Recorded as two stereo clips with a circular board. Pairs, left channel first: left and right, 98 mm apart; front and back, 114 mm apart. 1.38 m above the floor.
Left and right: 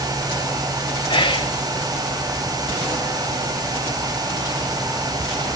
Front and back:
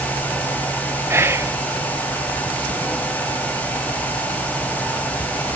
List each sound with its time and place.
1.1 s whispering: 115° left